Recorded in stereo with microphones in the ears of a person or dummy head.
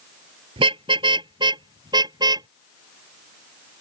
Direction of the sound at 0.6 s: 30° right (ahead or behind).